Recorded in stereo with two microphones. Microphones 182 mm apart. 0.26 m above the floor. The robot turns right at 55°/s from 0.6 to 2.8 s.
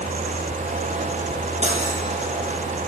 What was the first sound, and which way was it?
Cutlery clinking, 40° right (ahead or behind).